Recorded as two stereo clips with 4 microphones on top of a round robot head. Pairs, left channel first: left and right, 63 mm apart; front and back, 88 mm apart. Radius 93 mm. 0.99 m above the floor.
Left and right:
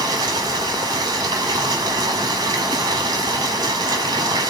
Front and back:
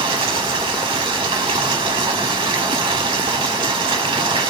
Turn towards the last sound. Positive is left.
turn(degrees=-135)